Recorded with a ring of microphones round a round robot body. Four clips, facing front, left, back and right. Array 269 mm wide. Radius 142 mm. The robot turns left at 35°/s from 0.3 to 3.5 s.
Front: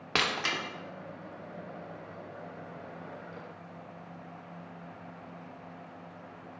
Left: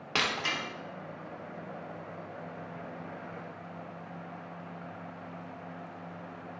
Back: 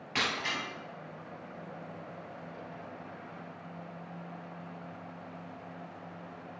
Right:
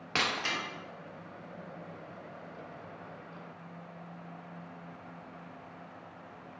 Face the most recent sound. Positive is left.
turn(degrees=-105)